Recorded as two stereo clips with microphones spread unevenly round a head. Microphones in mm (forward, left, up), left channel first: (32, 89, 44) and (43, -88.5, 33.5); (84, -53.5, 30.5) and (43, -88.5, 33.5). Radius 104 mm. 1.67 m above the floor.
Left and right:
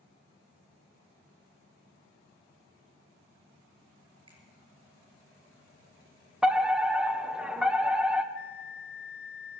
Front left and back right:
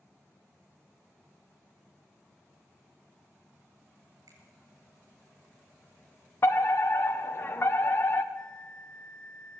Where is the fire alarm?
5° right, 1.4 m.